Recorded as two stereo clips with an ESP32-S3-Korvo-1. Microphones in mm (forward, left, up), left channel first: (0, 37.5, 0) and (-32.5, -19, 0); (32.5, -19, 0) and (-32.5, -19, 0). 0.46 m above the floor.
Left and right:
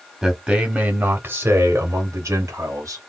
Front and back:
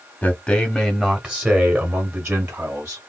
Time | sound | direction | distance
0.2 | a man speaking | 35° right | 1.0 m